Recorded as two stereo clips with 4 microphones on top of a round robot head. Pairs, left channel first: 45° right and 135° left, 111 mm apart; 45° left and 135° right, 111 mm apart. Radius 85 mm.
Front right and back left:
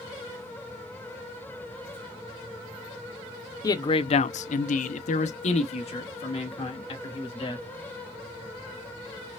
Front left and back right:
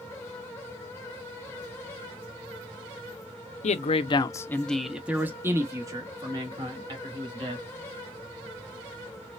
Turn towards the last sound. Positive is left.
turn(degrees=-90)